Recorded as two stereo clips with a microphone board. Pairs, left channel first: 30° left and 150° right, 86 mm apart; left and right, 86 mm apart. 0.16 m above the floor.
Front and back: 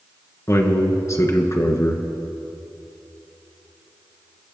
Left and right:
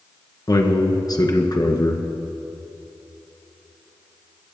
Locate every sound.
0.5 s a man speaking: 75° left, 2.0 m